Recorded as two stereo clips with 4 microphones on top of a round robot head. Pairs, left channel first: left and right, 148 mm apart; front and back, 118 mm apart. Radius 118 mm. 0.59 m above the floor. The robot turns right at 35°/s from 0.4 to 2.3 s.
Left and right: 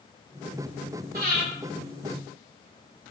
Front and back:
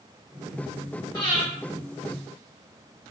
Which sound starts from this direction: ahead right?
Breathing, at 1.1 s.